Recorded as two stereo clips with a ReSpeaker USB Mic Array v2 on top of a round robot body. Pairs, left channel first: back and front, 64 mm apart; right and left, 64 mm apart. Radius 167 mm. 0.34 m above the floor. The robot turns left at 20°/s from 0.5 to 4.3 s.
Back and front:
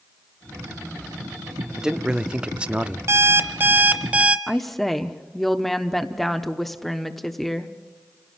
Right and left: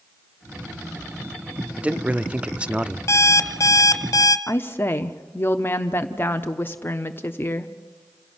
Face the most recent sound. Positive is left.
turn(degrees=-95)